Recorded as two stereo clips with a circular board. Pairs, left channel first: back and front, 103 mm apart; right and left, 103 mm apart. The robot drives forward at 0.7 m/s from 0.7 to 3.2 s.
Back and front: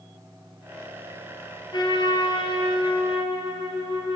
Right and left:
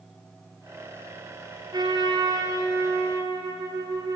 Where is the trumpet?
135° left, 3.5 m; by 4.2 s 145° left, 4 m.